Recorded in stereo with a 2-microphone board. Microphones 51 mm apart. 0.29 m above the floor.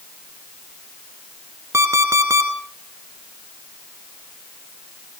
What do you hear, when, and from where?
1.7 s an alarm clock: 75° right (ahead or behind), 2.5 m